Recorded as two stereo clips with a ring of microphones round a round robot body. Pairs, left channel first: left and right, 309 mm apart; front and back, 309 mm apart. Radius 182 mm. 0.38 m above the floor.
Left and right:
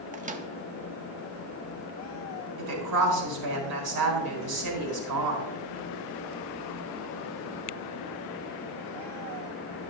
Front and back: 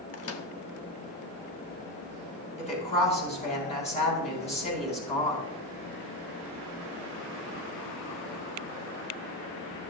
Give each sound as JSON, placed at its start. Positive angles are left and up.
{"t": 0.1, "sound": "a microwave", "azimuth_deg": -30, "distance_m": 0.9}
{"t": 2.6, "sound": "a woman speaking", "azimuth_deg": -70, "distance_m": 4.0}